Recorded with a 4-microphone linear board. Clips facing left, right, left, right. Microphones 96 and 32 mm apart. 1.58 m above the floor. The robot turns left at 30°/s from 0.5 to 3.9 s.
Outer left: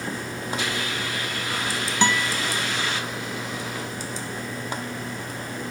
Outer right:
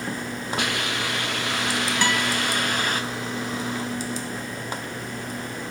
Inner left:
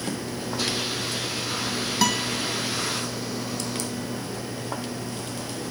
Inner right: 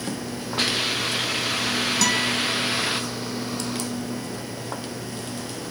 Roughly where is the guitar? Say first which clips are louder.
Outer left 3 dB, even; left.